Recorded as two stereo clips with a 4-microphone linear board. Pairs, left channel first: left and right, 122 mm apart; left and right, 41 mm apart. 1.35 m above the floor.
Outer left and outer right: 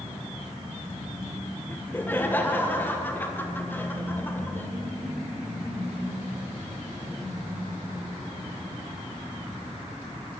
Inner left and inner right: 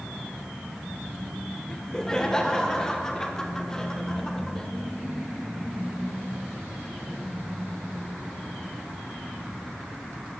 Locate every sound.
1.7 s laughter: 15° left (ahead or behind), 1.2 m